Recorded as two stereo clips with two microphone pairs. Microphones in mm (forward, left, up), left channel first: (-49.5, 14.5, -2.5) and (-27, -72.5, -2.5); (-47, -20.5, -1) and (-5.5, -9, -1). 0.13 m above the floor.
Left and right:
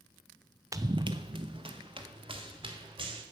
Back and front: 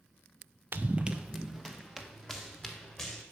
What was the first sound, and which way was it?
Running footsteps, 30° right.